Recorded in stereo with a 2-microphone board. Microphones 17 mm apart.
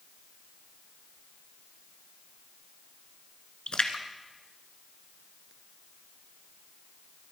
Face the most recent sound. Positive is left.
turn(degrees=70)  # may be behind; listen again after turning